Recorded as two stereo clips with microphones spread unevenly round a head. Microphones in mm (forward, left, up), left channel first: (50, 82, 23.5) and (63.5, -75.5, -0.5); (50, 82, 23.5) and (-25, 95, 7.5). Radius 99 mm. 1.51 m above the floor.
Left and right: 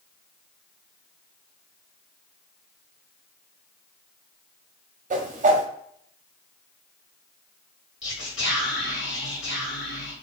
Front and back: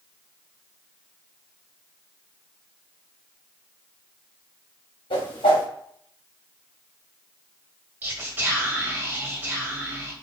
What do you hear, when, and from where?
5.1 s a whoosh: 40° right, 0.7 m
8.0 s whispering: 105° left, 1.7 m